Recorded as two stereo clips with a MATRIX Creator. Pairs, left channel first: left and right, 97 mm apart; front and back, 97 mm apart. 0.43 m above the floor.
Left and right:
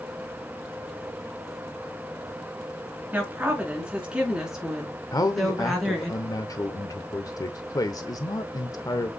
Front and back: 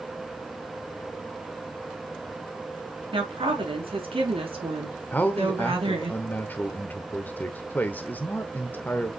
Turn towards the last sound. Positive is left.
turn(degrees=60)